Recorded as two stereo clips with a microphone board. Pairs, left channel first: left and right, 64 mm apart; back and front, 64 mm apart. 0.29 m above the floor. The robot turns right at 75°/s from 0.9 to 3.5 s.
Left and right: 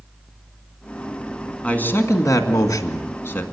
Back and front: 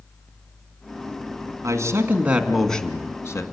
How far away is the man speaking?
About 2 m.